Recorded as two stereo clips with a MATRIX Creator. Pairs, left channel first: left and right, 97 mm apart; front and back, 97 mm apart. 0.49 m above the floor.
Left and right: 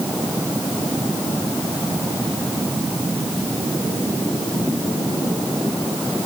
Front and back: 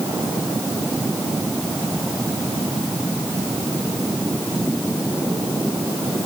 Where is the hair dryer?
No hair dryer in this recording.